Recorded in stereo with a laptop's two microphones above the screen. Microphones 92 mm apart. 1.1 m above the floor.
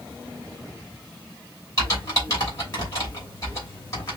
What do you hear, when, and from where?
1.8 s typing on a keyboard: 35° left (ahead or behind), 3 m